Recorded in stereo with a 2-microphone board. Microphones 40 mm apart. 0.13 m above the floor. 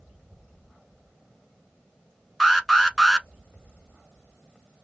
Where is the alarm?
Centre (ahead or behind), 0.8 m.